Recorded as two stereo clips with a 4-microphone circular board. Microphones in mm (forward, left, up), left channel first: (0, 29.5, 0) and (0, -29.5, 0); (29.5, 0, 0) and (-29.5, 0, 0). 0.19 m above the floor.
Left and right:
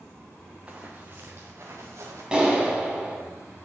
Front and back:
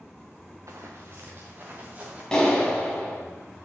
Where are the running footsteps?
155° right, 1.5 m; by 2.2 s 115° right, 2 m.